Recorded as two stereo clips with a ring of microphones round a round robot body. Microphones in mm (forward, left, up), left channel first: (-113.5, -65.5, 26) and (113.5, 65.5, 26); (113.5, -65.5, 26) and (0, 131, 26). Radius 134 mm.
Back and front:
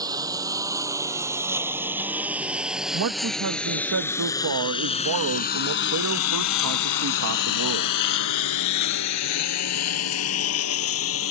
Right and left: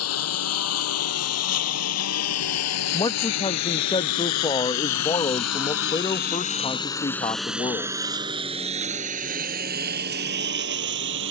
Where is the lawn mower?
45° right; by 11.3 s 170° left.